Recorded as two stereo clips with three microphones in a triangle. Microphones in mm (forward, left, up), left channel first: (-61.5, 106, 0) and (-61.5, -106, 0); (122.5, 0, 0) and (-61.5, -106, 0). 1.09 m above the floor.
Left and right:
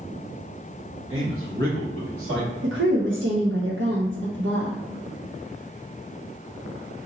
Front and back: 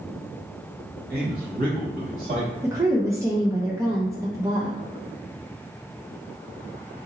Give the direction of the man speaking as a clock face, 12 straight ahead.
4 o'clock.